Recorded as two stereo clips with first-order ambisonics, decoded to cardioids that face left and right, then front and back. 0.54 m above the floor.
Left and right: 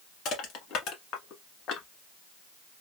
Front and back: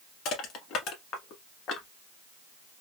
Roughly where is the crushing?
Ahead left.